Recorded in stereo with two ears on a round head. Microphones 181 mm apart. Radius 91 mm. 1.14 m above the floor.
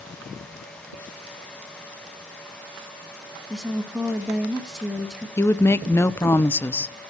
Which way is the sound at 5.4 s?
10° left (ahead or behind).